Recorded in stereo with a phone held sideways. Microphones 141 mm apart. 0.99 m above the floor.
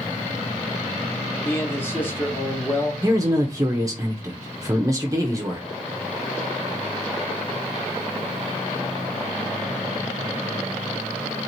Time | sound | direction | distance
1.4 | a man speaking | 15° left (ahead or behind) | 1.2 m
3.0 | a man speaking | 25° right (ahead or behind) | 0.6 m